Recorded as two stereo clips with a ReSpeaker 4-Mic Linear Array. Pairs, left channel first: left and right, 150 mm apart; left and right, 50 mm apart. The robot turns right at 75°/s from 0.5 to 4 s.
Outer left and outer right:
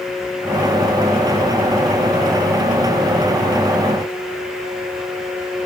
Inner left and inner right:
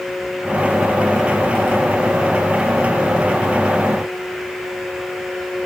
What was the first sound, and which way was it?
Only background noise.